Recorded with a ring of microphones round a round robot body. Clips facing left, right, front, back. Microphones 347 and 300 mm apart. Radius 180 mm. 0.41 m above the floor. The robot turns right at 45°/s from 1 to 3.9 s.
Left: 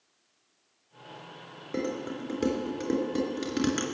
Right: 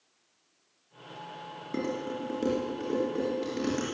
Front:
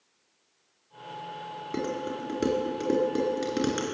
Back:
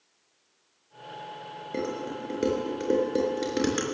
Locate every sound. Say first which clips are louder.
1.7 s dishes clattering: even, even; 5° right, 4 m; by 3.9 s 90° left, 4 m